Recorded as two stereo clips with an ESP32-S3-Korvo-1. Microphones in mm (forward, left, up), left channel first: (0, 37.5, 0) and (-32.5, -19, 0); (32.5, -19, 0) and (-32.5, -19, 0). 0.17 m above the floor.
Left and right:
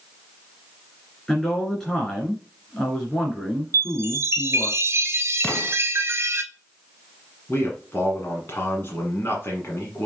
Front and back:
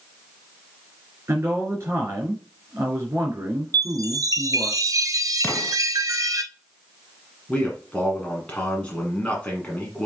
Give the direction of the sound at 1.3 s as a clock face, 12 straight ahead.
8 o'clock.